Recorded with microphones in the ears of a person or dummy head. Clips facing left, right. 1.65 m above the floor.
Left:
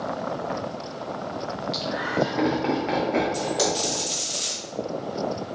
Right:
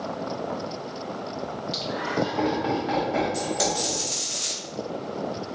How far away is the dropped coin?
About 2.0 m.